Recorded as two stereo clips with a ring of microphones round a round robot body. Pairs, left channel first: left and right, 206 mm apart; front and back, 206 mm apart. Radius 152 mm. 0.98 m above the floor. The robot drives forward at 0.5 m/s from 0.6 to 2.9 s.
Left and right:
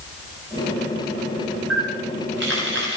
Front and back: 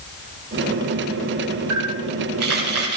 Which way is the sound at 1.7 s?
140° right.